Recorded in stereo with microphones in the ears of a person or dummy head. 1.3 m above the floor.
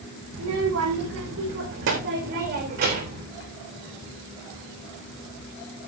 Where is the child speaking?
75° right (ahead or behind), 4.5 m; by 3.2 s 40° right (ahead or behind), 3.5 m.